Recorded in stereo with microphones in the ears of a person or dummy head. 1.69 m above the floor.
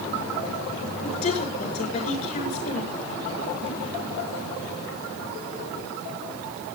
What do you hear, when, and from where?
1.0 s a woman speaking: 35° left (ahead or behind), 7 m